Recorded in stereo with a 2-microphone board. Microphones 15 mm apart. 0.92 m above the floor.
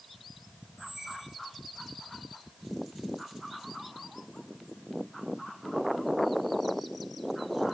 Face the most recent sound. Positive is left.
turn(degrees=-35)  # may be behind; listen again after turning